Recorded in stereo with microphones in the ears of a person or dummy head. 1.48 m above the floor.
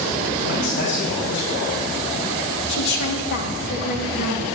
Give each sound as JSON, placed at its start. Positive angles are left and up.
{"t": 0.4, "sound": "a man speaking", "side_deg": 60, "distance_m": 4.5}
{"t": 2.7, "sound": "a woman speaking", "side_deg": 65, "distance_m": 1.9}